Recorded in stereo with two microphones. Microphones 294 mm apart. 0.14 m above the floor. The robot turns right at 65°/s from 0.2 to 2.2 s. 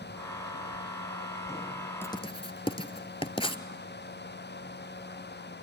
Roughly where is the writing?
Centre.